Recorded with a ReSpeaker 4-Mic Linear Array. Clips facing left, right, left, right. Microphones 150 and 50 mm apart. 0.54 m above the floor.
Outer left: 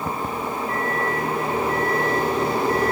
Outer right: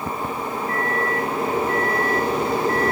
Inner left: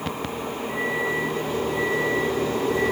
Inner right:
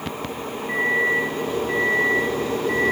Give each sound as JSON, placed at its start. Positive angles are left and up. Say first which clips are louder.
{"t": 0.7, "sound": "a microwave", "louder": "outer right 2 dB, inner right 6 dB", "side_deg": -50, "distance_m": 4.5}